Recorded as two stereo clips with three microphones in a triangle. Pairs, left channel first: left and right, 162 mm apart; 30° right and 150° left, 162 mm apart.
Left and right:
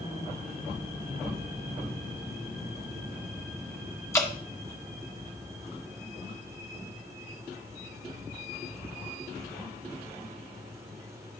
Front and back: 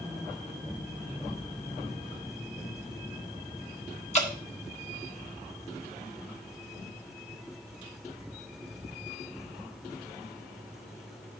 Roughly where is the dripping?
Ahead.